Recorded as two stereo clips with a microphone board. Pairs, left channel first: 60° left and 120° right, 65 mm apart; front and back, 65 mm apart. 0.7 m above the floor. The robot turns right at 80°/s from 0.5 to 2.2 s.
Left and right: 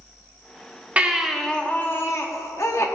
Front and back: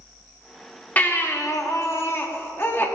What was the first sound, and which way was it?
A baby crying, 60° right.